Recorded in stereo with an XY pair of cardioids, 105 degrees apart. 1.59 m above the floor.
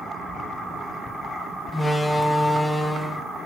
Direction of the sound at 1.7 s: 20° left.